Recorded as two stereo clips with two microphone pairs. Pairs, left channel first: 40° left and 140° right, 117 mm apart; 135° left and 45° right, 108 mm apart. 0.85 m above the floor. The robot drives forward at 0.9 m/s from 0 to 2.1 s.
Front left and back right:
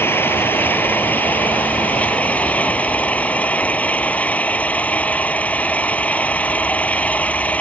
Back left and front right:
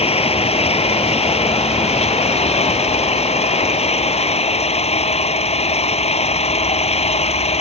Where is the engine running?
115° left; by 7.6 s 120° left.